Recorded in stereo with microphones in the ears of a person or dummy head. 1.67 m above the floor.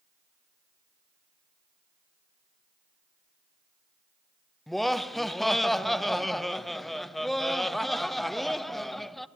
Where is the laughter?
Centre (ahead or behind), 0.7 m.